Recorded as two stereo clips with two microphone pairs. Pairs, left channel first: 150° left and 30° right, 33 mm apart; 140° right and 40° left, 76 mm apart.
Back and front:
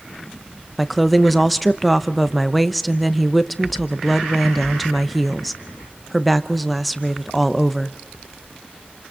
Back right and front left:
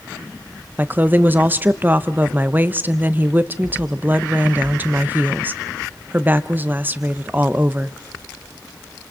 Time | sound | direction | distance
0.8 | a woman speaking | 60° left | 0.8 m